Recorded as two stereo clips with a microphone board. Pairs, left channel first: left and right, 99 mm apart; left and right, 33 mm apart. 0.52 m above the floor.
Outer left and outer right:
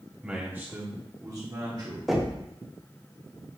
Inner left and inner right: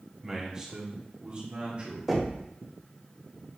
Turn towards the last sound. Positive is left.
turn(degrees=-5)  # may be behind; listen again after turning